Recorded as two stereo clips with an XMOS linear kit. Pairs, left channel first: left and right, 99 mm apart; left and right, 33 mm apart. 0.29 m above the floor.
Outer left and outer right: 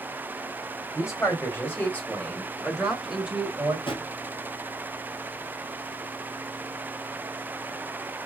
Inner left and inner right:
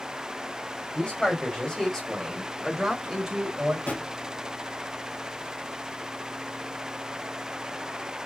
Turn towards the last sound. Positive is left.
turn(degrees=65)  # may be behind; listen again after turning